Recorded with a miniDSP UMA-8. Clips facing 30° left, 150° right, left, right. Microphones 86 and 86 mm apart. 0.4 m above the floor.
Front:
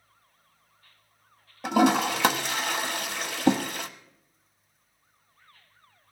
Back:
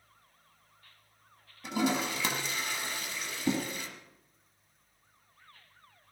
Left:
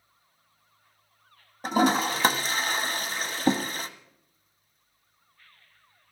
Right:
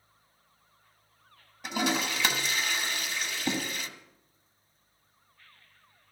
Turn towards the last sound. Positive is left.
turn(degrees=40)